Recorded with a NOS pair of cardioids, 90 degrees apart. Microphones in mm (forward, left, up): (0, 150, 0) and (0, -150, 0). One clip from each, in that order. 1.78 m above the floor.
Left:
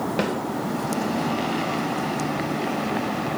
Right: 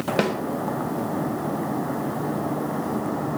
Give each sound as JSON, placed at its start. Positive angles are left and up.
{"t": 0.2, "sound": "a snare drum", "azimuth_deg": -25, "distance_m": 1.4}